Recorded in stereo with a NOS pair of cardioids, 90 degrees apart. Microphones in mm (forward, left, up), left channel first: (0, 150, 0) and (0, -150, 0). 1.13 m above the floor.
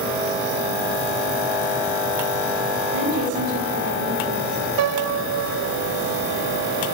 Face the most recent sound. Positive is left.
turn(degrees=-60)